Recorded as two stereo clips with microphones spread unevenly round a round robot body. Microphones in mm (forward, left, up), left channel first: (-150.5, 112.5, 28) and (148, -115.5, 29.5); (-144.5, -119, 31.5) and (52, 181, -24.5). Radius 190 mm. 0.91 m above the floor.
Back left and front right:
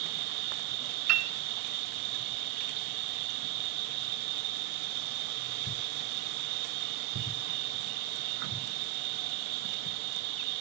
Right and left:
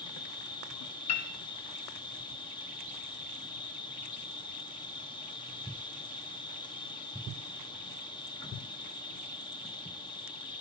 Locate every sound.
0.0 s an insect: 45° right, 0.9 m
1.1 s a piano: 55° right, 1.1 m